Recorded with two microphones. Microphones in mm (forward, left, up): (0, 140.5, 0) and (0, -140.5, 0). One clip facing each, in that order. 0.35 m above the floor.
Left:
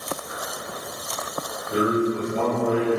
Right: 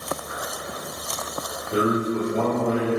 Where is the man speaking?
15° left (ahead or behind), 1.5 m.